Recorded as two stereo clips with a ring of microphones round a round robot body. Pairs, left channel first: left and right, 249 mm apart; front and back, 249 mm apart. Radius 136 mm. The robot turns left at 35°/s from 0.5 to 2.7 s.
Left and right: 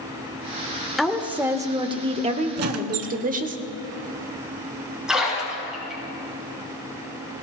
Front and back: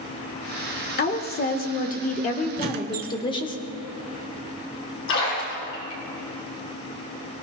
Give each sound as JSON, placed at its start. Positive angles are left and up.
{"t": 1.0, "sound": "a woman speaking", "azimuth_deg": 0, "distance_m": 1.1}
{"t": 2.6, "sound": "a squeak", "azimuth_deg": -120, "distance_m": 0.6}
{"t": 5.1, "sound": "a splash", "azimuth_deg": -5, "distance_m": 7.0}